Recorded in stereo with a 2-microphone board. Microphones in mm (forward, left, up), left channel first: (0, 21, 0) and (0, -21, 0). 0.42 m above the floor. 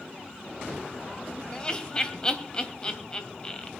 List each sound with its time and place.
1.5 s laughter: 20° left (ahead or behind), 2 m